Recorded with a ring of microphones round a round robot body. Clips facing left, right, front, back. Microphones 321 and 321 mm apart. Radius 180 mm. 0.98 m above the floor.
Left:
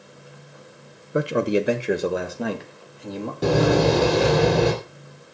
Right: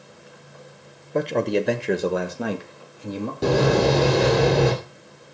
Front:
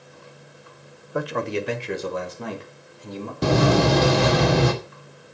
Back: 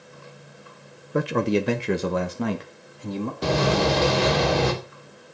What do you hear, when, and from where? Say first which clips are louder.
1.1 s a man speaking: left 1 dB, back 4 dB; 150° left, 0.9 m; by 3.3 s 175° right, 2.5 m
3.4 s a door slam: left 1 dB, front 4 dB; straight ahead, 2.5 m